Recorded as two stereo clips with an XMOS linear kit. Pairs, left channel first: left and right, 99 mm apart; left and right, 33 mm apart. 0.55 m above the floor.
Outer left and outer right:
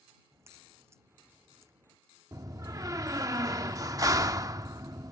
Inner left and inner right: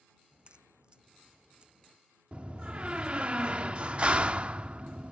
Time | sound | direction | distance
0.3 | a crack | 30° right (ahead or behind) | ?
2.3 | a door slam | 35° right (ahead or behind) | ?